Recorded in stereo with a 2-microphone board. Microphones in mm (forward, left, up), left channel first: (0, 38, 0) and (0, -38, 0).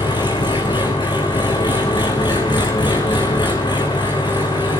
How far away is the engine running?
About 3.5 m.